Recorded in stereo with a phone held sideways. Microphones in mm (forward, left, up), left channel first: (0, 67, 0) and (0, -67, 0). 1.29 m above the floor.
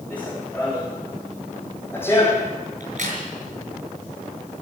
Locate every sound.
0.1 s running footsteps: 10° left (ahead or behind), 5.5 m; by 2.5 s 20° left (ahead or behind), 2.5 m
2.8 s a crack: 65° right (ahead or behind), 7 m